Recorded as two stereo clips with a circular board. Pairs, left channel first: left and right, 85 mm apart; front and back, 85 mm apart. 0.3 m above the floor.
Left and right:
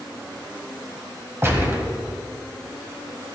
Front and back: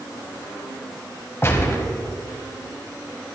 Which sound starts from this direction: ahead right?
A gunshot, at 1.4 s.